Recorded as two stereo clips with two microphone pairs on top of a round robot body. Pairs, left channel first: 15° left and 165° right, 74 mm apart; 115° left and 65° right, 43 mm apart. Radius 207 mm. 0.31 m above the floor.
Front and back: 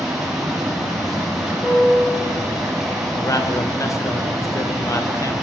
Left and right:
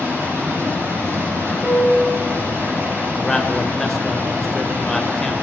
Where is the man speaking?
40° left, 2 m.